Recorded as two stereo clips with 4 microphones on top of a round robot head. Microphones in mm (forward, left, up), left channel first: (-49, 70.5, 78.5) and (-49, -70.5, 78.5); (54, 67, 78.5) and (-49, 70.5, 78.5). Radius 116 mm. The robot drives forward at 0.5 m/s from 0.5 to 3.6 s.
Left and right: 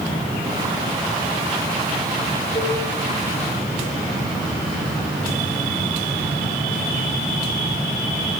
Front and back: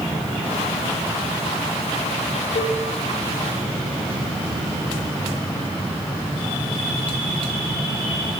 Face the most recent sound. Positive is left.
turn(degrees=20)